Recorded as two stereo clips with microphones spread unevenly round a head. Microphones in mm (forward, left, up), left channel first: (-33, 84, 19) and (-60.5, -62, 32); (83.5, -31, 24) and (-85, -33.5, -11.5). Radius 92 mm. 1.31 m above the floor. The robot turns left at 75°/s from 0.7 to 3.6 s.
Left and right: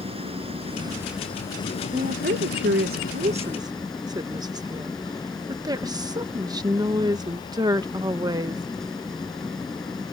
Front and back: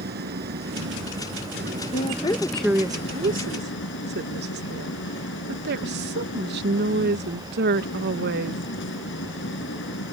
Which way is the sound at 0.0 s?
150° right.